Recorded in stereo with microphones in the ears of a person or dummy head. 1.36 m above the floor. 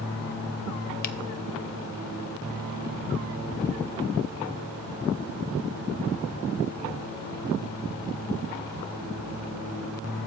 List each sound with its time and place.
1.0 s a finger snap: 45° left (ahead or behind), 0.6 m